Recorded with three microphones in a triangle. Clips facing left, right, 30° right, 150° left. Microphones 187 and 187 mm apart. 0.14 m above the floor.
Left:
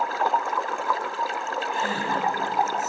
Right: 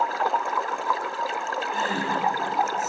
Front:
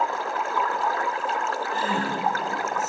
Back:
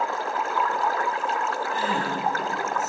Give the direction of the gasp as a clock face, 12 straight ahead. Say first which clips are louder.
Right 1 dB, front 1 dB; 4 o'clock.